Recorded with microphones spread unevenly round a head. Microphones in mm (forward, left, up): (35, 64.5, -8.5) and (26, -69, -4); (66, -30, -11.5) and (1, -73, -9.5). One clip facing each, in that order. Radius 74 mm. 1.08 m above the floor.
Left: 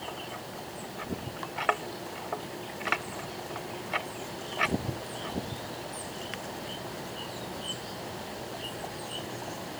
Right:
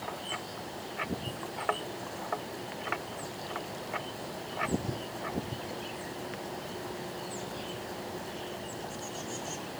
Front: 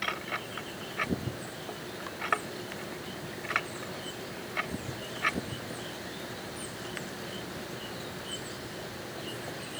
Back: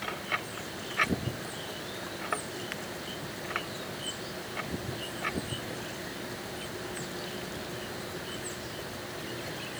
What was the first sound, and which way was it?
Only background noise.